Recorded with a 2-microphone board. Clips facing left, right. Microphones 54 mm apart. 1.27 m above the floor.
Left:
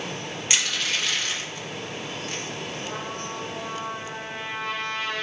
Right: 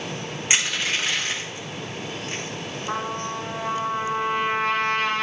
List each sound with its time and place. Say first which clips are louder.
0.5 s crushing: right 3 dB; 25° right (ahead or behind), 2.5 m
2.9 s a trumpet: right 5 dB; 65° right (ahead or behind), 1.9 m